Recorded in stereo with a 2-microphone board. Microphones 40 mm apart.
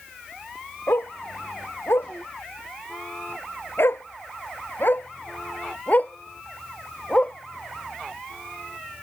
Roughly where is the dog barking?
Left.